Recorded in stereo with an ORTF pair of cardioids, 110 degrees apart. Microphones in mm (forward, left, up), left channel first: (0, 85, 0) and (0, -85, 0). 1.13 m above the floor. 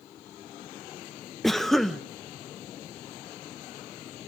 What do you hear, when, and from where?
1.4 s a cough: straight ahead, 0.7 m